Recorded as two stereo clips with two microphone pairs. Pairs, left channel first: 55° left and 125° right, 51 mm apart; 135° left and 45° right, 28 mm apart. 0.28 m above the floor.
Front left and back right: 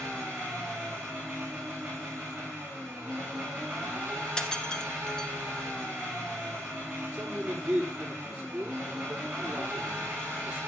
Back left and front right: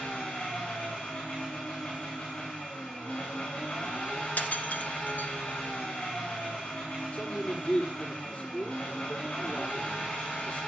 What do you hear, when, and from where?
0.0 s an engine running: 155° left, 8.5 m
4.4 s breaking glass: 125° left, 1.8 m
7.1 s a man speaking: 160° left, 8 m